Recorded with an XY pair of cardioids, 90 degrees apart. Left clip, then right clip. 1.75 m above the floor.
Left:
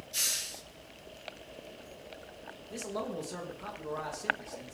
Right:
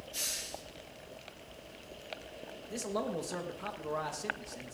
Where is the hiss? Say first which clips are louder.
Left 5 dB; 55° left, 1.9 m.